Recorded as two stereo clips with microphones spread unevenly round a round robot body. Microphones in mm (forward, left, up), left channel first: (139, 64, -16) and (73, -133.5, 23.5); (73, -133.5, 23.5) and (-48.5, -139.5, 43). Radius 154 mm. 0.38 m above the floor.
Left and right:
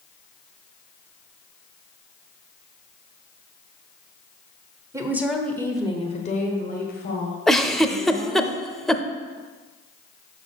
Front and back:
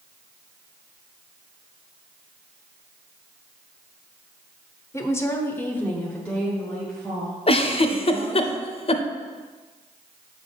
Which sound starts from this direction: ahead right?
A woman speaking, at 4.9 s.